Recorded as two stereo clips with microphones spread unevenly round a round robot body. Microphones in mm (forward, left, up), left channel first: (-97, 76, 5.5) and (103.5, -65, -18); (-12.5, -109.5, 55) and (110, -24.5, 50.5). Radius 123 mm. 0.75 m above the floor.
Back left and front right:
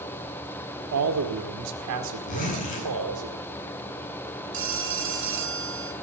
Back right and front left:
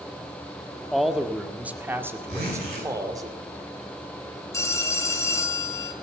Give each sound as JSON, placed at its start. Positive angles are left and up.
{"t": 0.9, "sound": "a man speaking", "azimuth_deg": -55, "distance_m": 1.6}
{"t": 2.3, "sound": "a zipper", "azimuth_deg": 85, "distance_m": 8.5}
{"t": 4.5, "sound": "a phone ringing", "azimuth_deg": -75, "distance_m": 2.5}